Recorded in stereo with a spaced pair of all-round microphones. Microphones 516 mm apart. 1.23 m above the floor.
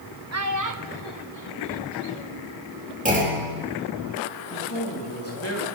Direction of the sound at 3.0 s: 15° right (ahead or behind).